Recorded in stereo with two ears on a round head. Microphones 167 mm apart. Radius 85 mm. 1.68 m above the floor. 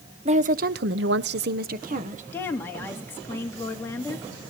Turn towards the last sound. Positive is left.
turn(degrees=15)  # may be behind; listen again after turning